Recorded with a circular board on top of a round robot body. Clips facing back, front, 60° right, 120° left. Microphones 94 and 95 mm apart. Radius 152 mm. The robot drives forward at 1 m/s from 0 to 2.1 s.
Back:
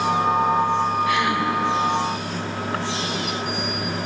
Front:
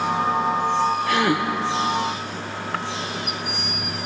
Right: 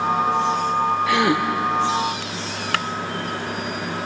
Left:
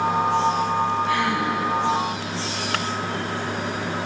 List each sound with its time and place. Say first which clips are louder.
1.1 s a gasp: front 1 dB, right 3 dB; 50° right, 2 m; by 1.4 s 60° right, 1.9 m